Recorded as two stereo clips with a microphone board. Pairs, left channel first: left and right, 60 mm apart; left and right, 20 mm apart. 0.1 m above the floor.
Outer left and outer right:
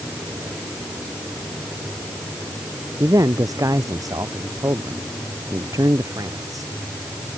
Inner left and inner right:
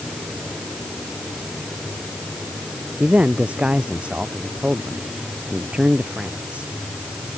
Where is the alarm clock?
I don't hear an alarm clock.